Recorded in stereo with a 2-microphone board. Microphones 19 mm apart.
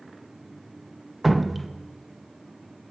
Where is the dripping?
5° right (ahead or behind), 0.7 m.